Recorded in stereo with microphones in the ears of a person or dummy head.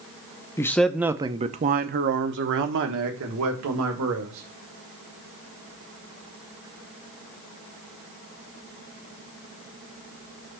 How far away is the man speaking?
About 0.8 m.